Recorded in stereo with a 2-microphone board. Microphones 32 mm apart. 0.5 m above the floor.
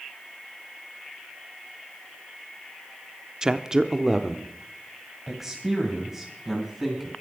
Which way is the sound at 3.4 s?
20° right (ahead or behind).